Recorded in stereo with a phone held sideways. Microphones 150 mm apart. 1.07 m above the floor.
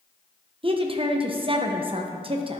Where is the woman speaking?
35° right (ahead or behind), 0.6 m.